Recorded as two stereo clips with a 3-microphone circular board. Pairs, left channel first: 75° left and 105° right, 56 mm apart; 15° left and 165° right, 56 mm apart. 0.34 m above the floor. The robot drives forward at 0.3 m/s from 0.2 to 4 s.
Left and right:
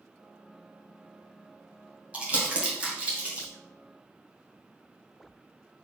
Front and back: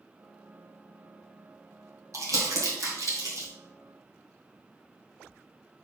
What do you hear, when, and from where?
2.1 s crumpling: 170° right, 2 m